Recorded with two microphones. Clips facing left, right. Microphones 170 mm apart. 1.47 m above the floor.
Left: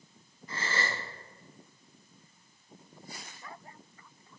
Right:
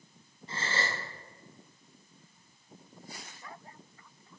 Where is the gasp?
30° right (ahead or behind), 0.8 m.